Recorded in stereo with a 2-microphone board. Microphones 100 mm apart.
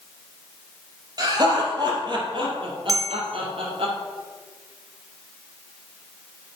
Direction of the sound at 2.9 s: 35° right (ahead or behind).